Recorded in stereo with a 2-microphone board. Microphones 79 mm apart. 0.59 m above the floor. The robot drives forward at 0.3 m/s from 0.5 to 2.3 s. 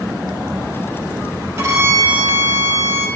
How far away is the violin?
About 3.5 m.